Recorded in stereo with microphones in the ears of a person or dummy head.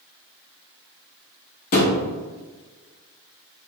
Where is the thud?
45° left (ahead or behind), 1.0 m.